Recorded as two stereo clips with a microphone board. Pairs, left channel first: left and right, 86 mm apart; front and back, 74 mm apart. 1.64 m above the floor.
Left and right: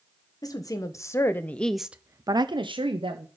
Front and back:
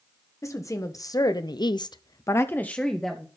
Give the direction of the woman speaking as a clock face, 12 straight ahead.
10 o'clock.